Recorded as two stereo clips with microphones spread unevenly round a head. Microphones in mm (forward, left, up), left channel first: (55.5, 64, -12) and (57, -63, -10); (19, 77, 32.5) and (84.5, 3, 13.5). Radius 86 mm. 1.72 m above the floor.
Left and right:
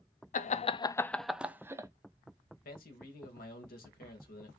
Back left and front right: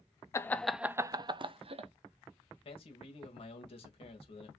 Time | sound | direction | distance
0.3 | laughter | 75° left | 0.7 m
2.6 | a man speaking | 110° left | 1.8 m